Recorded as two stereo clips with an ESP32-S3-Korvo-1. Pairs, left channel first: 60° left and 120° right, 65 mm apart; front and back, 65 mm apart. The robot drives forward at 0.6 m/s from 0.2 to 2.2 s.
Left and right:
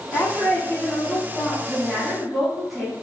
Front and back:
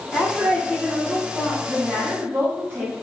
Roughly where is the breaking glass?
No breaking glass in this recording.